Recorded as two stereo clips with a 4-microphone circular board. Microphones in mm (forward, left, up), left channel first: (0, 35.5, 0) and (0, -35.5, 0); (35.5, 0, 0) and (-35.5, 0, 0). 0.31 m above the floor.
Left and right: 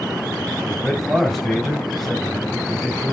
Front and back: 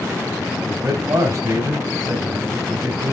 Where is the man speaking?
Straight behind, 2 m.